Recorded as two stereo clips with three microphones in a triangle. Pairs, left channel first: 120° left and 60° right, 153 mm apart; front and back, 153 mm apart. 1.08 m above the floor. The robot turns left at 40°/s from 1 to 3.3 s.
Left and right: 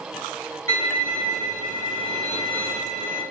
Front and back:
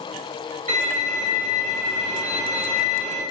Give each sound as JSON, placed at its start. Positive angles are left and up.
{"t": 0.7, "sound": "a violin", "azimuth_deg": 50, "distance_m": 1.8}